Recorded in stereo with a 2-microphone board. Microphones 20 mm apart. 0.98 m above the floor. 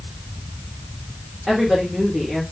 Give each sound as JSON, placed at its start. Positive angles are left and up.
{"t": 1.5, "sound": "a woman speaking", "side_deg": -10, "distance_m": 3.0}